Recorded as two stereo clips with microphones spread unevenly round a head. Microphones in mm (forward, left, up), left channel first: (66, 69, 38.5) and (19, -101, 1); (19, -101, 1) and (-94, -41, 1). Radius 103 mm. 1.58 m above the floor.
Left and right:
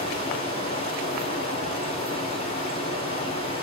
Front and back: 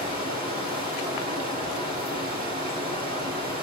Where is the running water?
135° left, 3.5 m.